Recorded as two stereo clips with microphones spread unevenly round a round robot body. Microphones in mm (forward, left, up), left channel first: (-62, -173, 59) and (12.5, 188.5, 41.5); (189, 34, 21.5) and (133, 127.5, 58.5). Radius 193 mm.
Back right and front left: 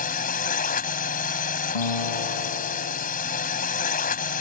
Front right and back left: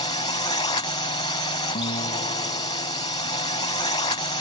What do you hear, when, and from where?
0.0 s a drone: 35° right
1.8 s a guitar: 90° right